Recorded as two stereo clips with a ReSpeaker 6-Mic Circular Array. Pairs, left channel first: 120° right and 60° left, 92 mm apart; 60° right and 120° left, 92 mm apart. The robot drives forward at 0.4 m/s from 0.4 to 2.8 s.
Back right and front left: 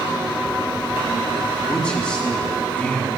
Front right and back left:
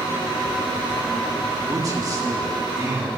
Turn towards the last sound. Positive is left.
turn(degrees=165)